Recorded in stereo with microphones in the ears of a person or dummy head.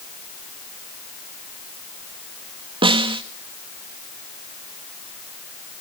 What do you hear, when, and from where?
2.8 s a snare drum: 25° right (ahead or behind), 1.4 m